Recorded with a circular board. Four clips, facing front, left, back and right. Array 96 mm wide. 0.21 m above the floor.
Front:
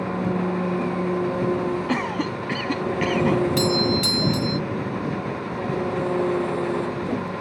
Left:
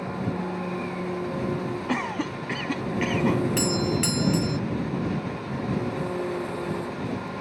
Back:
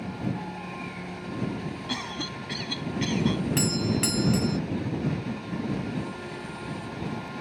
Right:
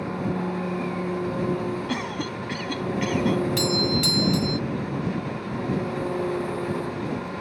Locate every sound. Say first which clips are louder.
0.0 s an engine running: right 2 dB, front 9 dB; 10° right
1.9 s a cough: left 1 dB, front 10 dB; 20° left
3.6 s a doorbell: right 1 dB, front 6 dB; 135° left